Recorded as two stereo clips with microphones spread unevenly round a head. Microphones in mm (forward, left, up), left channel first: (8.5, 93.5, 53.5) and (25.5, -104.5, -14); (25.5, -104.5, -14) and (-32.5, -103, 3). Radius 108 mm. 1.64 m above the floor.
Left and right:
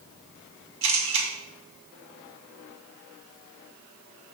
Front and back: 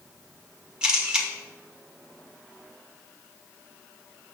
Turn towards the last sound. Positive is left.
turn(degrees=-100)